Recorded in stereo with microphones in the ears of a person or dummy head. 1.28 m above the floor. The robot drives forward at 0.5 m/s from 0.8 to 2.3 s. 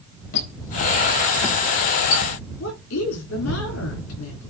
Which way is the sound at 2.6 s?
80° left.